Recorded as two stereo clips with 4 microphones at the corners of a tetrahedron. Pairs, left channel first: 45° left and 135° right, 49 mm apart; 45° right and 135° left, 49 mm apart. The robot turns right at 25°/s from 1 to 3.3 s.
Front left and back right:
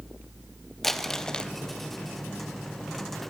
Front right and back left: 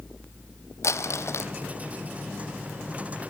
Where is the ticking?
I don't hear ticking.